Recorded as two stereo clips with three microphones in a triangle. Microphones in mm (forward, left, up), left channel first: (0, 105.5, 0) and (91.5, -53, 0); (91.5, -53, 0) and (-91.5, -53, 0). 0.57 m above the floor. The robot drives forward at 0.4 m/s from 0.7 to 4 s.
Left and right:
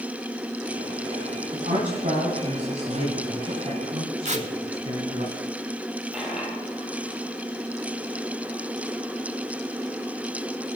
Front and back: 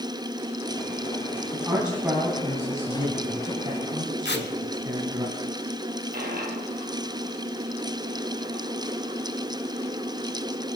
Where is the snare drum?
No snare drum in this recording.